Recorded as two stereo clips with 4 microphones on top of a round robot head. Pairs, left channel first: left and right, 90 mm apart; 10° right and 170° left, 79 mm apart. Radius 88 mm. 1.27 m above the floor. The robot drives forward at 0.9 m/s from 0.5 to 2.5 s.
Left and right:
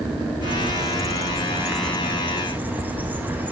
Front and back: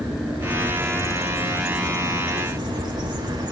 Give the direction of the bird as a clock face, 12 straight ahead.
4 o'clock.